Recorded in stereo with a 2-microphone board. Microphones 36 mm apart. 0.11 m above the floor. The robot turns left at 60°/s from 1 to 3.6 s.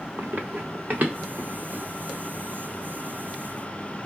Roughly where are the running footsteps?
Right.